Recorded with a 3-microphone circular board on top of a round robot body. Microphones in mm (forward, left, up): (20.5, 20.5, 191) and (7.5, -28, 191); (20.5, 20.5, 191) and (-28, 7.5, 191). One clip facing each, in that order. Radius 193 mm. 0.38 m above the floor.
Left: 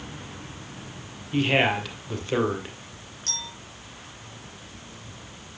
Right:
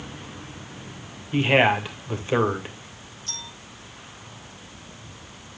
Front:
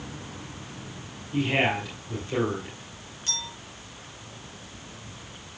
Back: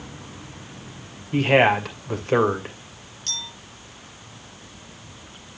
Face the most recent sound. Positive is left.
turn(degrees=95)